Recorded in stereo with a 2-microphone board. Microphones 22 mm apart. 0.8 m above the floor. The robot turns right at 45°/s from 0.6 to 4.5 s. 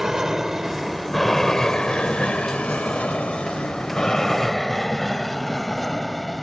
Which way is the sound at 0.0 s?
20° right (ahead or behind).